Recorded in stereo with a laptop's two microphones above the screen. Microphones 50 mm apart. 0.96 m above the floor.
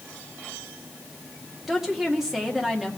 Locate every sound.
1.7 s a woman speaking: 10° right (ahead or behind), 2 m